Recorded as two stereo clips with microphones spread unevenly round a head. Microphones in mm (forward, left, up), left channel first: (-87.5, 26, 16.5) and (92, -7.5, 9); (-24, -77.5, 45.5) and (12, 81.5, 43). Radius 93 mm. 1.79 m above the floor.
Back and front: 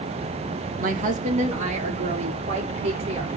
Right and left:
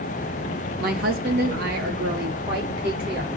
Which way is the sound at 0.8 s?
35° left.